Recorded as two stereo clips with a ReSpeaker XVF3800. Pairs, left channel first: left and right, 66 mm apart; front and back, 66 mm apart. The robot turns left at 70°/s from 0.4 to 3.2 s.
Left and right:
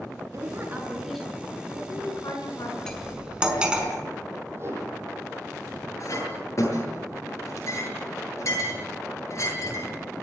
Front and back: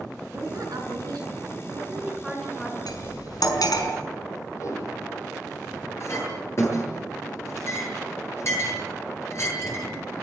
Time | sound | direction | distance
0.3 | a woman speaking | 130° right | 8 m
2.9 | cutlery clinking | 10° left | 5 m
4.5 | a whoosh | 40° right | 8.5 m
6.0 | a clink | 45° left | 9 m